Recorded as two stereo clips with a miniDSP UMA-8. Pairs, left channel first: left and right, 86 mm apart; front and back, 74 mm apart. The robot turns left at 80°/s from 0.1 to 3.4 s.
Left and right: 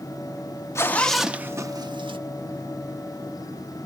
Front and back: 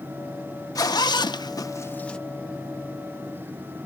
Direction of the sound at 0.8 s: 35° left.